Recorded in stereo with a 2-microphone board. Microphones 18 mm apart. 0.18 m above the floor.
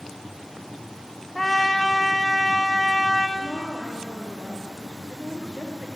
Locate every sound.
1.4 s a trumpet: 15° left (ahead or behind), 2 m
3.4 s a woman speaking: 55° left (ahead or behind), 4 m